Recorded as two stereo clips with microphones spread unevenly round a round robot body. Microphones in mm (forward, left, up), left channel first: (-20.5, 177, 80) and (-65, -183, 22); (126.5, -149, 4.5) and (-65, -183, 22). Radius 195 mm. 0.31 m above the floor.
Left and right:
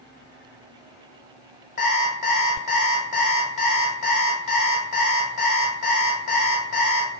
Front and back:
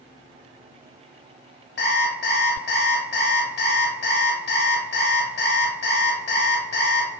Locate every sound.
1.8 s an alarm clock: 10° left, 0.9 m